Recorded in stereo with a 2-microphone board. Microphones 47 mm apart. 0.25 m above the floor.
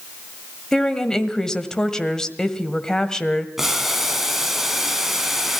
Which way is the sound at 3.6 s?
10° right (ahead or behind).